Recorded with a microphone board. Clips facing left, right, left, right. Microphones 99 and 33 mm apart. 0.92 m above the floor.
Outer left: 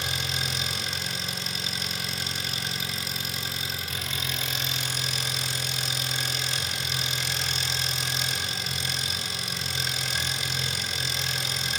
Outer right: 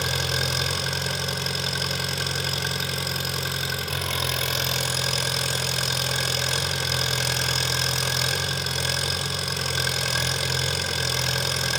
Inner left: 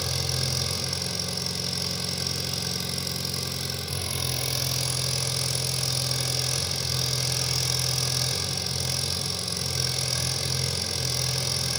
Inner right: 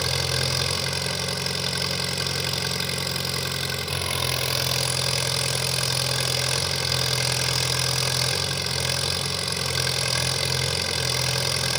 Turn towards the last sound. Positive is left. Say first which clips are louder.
# outer right 5 dB, inner right 5 dB
turn(degrees=-70)  # may be behind; listen again after turning